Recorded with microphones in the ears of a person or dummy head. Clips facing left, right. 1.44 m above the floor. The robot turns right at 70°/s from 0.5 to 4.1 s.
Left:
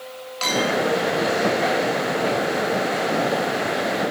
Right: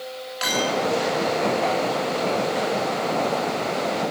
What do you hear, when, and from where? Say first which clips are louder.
0.4 s a clink: left 2 dB; 20° right (ahead or behind), 1.8 m; by 0.8 s 40° right (ahead or behind), 1.8 m